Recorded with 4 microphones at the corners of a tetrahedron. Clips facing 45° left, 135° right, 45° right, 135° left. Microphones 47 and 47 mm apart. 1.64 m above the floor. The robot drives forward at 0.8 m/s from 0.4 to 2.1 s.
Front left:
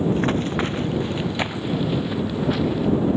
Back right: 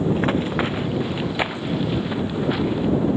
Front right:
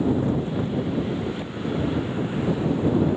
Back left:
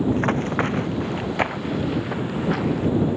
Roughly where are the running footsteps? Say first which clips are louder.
Back right 1 dB, back left 2 dB; behind left.